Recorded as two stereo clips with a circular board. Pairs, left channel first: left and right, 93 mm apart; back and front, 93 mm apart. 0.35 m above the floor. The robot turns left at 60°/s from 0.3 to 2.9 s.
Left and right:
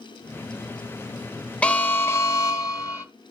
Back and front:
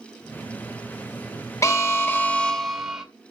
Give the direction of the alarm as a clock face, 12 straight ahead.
7 o'clock.